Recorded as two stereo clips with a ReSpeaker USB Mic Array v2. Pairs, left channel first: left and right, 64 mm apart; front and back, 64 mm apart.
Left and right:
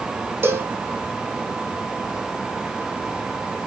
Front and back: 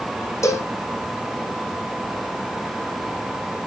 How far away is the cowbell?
About 1.2 m.